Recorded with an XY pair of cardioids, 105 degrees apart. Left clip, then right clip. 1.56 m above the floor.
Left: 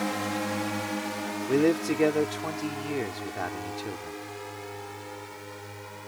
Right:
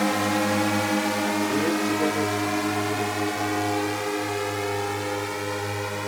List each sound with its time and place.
0.0 s a drone: 45° right; by 6.1 s 75° right
1.5 s a man speaking: 35° left